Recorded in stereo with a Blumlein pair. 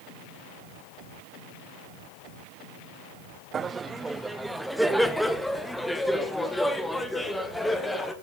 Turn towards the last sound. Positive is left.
turn(degrees=10)